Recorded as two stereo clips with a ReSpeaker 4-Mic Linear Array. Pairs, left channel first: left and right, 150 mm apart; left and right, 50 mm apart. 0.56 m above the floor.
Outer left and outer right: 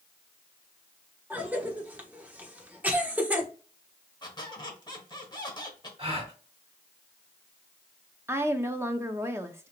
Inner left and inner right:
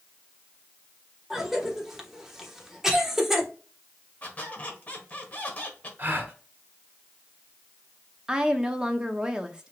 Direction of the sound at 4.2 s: 30° left (ahead or behind).